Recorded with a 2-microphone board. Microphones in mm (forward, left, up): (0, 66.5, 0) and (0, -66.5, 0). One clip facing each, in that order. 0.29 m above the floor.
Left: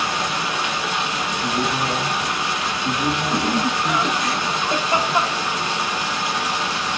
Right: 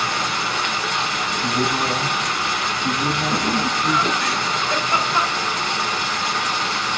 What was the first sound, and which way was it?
Running water, 15° left (ahead or behind).